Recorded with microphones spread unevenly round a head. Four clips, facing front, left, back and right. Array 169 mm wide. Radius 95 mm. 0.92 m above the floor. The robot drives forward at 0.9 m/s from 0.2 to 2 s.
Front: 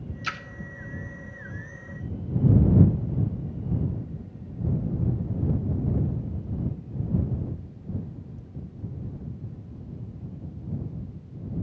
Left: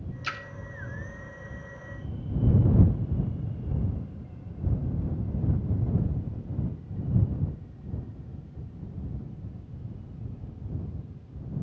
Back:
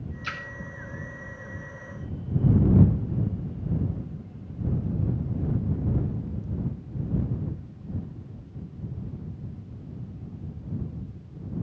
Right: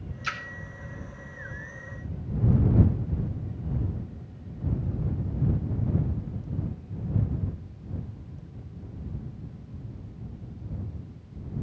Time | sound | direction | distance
0.2 | a splash | 20° left | 0.5 m